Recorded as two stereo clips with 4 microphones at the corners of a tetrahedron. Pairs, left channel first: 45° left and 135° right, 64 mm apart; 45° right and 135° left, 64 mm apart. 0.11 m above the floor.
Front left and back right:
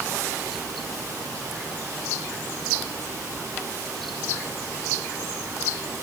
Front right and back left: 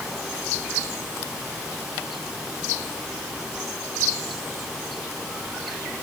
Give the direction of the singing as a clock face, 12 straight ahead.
I don't hear singing.